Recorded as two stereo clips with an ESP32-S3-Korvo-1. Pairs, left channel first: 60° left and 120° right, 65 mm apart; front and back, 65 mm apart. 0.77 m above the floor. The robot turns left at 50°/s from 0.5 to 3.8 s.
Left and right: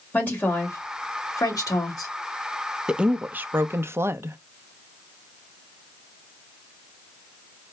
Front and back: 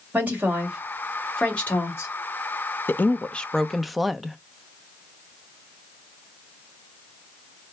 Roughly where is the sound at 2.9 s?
Ahead right.